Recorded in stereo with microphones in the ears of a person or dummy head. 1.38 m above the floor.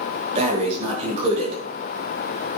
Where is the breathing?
35° right (ahead or behind), 6.5 m.